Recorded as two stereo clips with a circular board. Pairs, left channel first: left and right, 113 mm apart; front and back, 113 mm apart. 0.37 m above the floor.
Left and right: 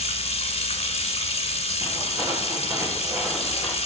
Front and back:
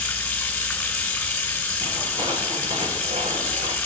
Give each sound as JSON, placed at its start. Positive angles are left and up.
{"t": 0.0, "sound": "running water", "azimuth_deg": 75, "distance_m": 1.6}
{"t": 1.8, "sound": "footsteps", "azimuth_deg": -150, "distance_m": 3.5}